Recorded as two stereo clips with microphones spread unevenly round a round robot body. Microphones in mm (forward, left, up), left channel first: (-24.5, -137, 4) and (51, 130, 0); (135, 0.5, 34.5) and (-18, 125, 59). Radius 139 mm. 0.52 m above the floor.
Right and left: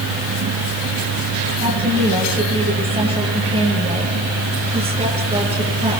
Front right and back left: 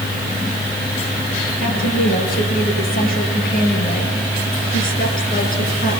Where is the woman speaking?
5° left, 9.5 m.